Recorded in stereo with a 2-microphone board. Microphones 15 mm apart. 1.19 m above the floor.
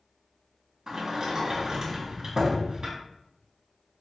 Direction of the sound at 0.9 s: 40° right (ahead or behind).